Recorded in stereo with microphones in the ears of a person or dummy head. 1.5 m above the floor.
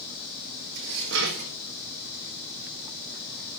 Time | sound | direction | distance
0.8 | dishes clattering | 60° right (ahead or behind) | 1.5 m